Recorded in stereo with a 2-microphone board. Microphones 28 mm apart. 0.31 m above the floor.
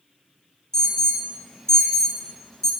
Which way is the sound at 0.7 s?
20° left (ahead or behind).